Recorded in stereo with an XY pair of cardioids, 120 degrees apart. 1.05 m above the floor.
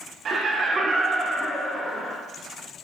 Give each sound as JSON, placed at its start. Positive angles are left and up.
{"t": 0.2, "sound": "laughter", "azimuth_deg": -45, "distance_m": 0.9}